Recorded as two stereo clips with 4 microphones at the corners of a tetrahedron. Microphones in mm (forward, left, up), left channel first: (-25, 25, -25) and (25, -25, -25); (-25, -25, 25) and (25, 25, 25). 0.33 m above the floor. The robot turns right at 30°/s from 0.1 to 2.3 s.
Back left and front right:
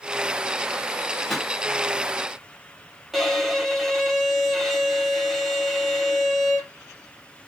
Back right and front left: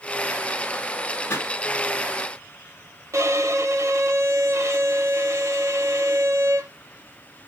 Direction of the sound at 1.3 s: 135° right.